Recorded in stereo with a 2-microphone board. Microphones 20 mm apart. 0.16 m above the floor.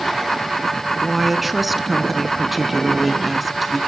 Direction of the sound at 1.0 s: 5° right (ahead or behind).